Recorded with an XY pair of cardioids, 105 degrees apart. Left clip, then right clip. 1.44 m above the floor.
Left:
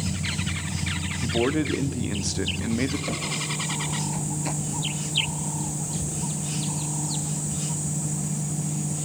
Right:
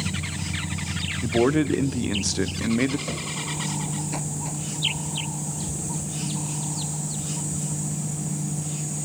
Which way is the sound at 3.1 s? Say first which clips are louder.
Left 2 dB; 10° left.